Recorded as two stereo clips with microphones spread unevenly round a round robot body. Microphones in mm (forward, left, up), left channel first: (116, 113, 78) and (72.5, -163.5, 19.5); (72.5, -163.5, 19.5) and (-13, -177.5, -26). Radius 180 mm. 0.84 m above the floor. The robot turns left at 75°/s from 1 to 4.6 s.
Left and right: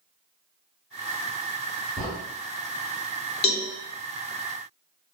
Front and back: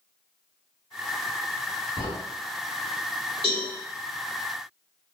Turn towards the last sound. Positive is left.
turn(degrees=-40)